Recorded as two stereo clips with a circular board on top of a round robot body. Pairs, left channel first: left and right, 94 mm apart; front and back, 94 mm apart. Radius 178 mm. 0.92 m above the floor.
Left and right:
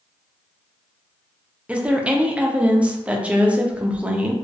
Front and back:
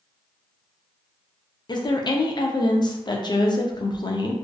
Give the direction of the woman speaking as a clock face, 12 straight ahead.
1 o'clock.